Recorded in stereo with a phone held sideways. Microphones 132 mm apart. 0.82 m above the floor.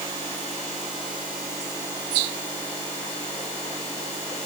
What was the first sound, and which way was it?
Only background noise.